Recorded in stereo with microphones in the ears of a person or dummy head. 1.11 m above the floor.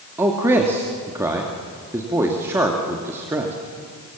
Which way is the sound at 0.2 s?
15° right (ahead or behind).